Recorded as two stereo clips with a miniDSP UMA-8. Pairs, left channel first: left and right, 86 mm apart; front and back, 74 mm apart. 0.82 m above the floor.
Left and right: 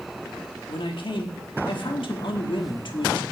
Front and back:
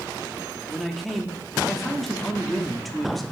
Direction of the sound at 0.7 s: 90° left.